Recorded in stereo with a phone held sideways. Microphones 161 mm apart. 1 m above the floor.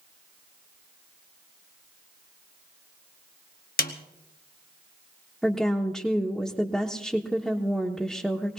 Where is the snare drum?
65° left (ahead or behind), 1.2 m.